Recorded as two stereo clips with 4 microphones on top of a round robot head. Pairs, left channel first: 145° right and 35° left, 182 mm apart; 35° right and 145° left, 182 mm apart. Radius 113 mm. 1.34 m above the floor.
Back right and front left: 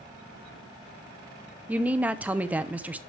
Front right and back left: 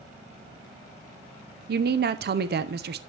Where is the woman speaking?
115° left, 0.7 m.